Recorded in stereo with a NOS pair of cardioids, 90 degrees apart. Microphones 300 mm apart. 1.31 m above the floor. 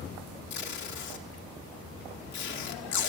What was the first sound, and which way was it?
Tape being pulled, 70° left.